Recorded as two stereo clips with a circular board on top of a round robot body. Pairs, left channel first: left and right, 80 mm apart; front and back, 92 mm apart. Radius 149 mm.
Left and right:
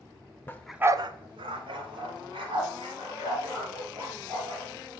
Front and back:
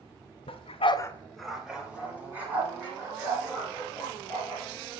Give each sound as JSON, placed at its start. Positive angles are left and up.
{"t": 0.5, "sound": "a dog barking", "azimuth_deg": 20, "distance_m": 0.7}